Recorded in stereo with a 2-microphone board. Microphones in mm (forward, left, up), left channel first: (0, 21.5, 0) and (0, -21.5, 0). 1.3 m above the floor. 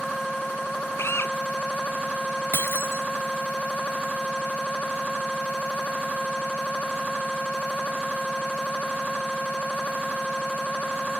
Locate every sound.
1.0 s a drill: 75° left (ahead or behind)
2.5 s breaking glass: 75° left (ahead or behind)